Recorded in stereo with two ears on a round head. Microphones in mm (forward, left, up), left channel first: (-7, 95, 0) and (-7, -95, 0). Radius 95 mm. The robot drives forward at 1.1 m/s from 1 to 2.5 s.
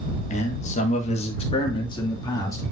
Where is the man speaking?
35° left (ahead or behind), 1.5 m; by 2.6 s 15° left (ahead or behind), 3 m.